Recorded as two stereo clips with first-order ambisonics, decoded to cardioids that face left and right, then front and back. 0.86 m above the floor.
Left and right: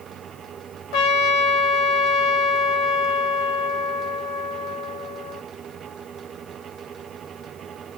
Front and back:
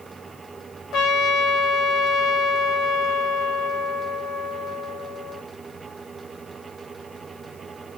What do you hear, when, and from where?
0.9 s a trumpet: 55° left, 0.8 m